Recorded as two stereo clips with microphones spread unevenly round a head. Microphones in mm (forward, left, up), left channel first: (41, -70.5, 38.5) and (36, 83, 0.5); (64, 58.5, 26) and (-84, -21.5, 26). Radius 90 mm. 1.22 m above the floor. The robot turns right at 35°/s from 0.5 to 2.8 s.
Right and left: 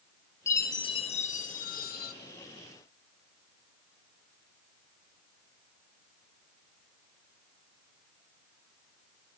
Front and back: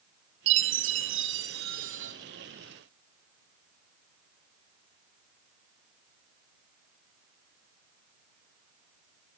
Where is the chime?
155° right, 1.0 m; by 2.1 s 100° right, 1.0 m.